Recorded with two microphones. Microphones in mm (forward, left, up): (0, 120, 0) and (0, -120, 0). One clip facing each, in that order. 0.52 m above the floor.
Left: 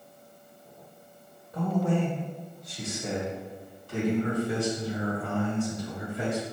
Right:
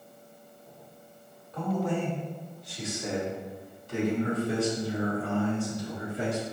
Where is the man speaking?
20° left (ahead or behind), 1.8 m; by 6.4 s 40° right (ahead or behind), 4 m.